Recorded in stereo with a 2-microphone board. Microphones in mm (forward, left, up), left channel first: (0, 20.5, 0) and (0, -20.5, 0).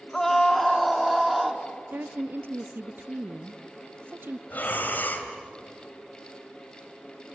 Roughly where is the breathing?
Left.